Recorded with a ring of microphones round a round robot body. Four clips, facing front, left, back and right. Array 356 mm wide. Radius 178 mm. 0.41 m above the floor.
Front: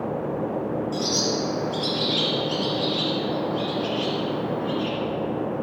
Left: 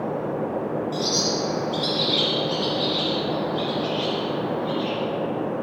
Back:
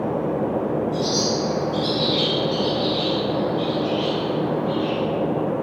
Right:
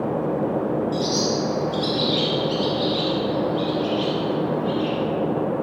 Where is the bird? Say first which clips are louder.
Right 3 dB, back 3 dB; 10° right, 2.5 m.